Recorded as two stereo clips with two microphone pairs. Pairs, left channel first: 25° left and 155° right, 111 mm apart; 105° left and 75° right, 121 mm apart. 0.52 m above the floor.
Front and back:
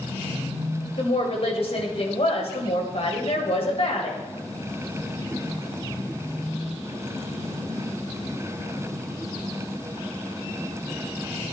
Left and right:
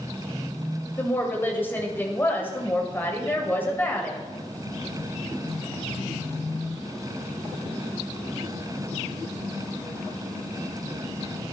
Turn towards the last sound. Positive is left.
turn(degrees=35)